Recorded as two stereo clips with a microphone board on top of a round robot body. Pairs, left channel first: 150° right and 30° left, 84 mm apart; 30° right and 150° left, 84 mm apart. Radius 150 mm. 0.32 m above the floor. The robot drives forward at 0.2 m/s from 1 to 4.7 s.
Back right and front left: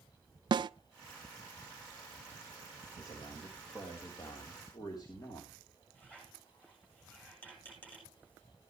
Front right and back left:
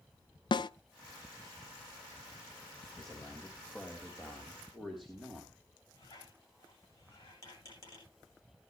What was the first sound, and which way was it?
A snare drum, straight ahead.